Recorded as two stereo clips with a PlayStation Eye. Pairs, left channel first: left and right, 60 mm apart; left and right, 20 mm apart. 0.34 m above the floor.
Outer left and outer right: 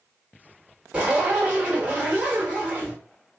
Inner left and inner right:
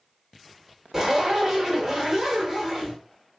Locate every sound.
0.9 s a zipper: 15° right (ahead or behind), 1.3 m